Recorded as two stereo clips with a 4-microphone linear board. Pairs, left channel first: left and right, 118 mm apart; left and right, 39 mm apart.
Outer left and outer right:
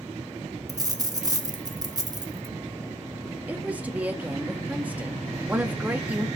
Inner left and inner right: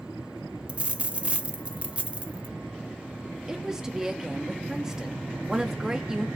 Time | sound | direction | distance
0.7 | a dropped coin | 30° right (ahead or behind) | 0.6 m
3.5 | a woman speaking | 10° right (ahead or behind) | 1.1 m